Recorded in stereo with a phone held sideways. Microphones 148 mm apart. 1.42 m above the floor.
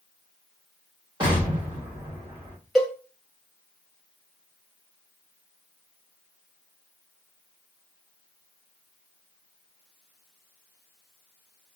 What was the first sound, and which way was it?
An explosion, 30° right (ahead or behind).